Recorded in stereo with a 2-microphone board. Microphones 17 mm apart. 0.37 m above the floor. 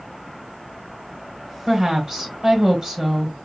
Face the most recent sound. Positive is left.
turn(degrees=-45)  # may be behind; listen again after turning